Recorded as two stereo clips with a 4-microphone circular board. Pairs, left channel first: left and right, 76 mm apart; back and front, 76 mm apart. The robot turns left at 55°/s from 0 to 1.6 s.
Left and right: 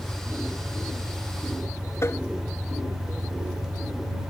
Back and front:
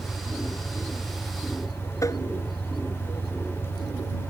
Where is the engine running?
Straight ahead; by 4.3 s 90° right.